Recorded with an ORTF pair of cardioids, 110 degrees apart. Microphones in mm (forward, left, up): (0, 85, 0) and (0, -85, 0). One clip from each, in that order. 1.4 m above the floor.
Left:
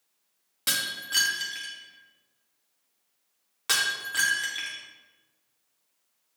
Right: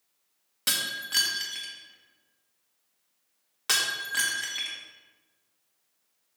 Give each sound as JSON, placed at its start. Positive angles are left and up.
{"t": 0.7, "sound": "breaking glass", "azimuth_deg": -5, "distance_m": 1.4}